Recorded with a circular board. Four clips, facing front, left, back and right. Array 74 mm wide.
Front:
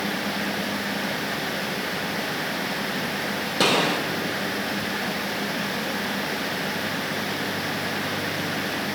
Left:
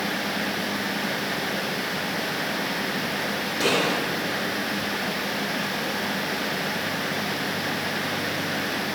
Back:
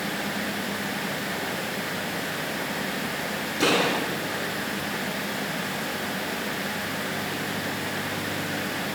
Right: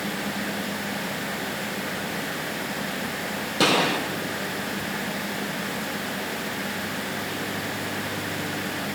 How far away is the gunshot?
About 5.5 m.